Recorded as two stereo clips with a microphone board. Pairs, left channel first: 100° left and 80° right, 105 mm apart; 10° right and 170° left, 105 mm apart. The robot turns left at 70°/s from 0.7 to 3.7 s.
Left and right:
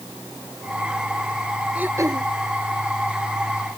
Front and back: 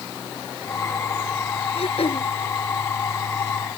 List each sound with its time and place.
1.8 s throat clearing: straight ahead; by 2.3 s 35° right